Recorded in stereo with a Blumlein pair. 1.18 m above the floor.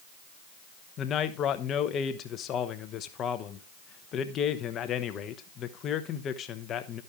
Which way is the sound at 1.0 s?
30° left.